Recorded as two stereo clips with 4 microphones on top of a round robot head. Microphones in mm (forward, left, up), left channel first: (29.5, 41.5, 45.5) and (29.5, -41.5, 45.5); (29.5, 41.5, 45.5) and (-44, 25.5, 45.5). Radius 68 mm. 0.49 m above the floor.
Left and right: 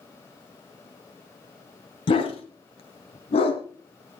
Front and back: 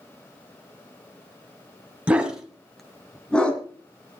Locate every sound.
2.1 s a dog barking: 115° left, 1.9 m; by 3.6 s 90° left, 2.5 m